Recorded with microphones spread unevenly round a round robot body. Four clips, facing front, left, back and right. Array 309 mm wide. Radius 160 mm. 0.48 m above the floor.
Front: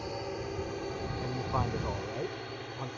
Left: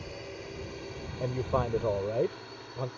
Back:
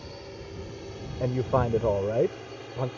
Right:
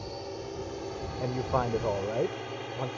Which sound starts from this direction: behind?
A man speaking, at 1.2 s.